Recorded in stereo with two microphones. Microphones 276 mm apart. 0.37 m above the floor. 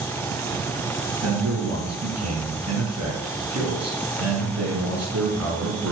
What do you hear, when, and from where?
1.2 s a man speaking: 65° right (ahead or behind), 4.5 m